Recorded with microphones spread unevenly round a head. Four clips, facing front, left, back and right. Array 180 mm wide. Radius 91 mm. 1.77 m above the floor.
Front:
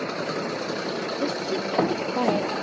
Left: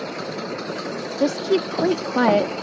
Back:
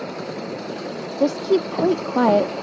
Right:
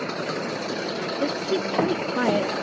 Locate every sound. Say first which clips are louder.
1.2 s a woman speaking: left 6 dB, back 11 dB; 155° left